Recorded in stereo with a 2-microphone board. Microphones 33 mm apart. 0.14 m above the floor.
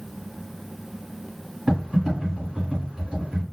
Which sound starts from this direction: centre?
Typing on a keyboard, at 1.7 s.